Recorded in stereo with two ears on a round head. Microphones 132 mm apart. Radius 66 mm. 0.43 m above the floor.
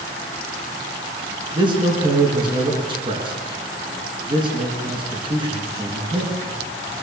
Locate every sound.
1.5 s a man speaking: 30° right (ahead or behind), 5.5 m